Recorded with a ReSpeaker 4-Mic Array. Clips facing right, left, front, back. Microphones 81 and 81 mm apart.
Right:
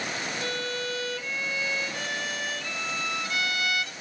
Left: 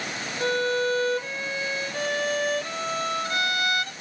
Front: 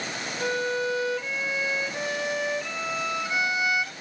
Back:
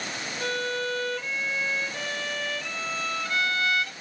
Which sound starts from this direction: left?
A violin, at 0.4 s.